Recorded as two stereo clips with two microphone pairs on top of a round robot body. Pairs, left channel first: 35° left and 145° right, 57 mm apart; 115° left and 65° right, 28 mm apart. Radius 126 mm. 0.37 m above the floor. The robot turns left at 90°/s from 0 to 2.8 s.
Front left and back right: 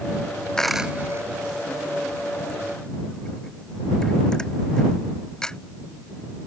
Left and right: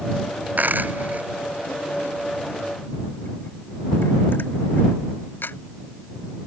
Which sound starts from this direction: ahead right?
A dropped coin, at 0.6 s.